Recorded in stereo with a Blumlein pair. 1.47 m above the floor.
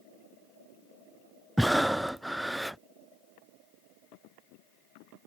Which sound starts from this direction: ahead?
Breathing, at 1.6 s.